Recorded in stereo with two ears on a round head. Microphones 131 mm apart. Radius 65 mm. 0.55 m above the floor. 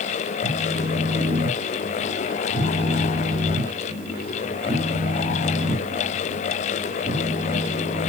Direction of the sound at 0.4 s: 25° right (ahead or behind).